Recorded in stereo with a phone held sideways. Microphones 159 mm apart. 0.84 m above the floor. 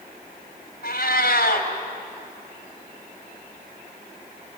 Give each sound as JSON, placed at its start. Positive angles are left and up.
{"t": 0.8, "sound": "a cat meowing", "side_deg": 80, "distance_m": 2.5}